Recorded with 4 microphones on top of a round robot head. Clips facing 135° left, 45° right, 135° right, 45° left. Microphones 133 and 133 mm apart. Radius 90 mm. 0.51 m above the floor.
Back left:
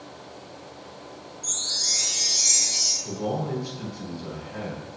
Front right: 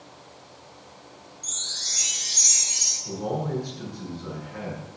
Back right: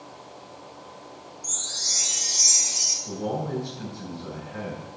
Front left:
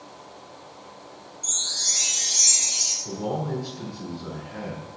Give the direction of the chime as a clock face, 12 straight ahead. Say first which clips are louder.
Back left 5 dB, even; 11 o'clock.